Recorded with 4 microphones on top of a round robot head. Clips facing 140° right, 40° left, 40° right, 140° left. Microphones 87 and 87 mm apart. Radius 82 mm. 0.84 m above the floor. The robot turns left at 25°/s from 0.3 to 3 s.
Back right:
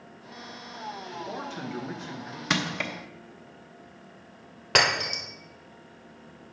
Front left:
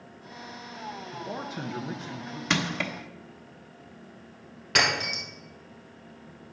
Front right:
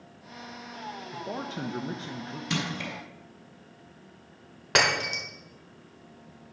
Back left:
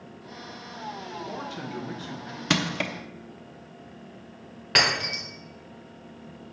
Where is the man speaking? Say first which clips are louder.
Front left 1 dB, even; 30° right, 1.0 m; by 2.4 s 60° right, 1.0 m.